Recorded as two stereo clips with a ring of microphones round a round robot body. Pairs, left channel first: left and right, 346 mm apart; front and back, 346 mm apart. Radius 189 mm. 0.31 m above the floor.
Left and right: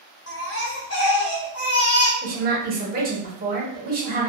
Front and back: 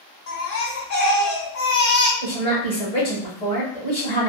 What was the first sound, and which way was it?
A baby crying, 45° left.